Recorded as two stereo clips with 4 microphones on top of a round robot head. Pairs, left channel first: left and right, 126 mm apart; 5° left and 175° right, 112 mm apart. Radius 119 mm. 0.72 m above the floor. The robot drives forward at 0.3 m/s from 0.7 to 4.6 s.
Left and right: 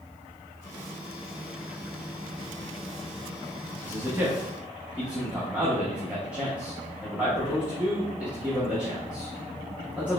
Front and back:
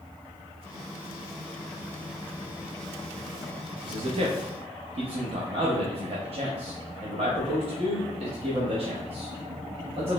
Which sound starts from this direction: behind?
A man speaking, at 3.8 s.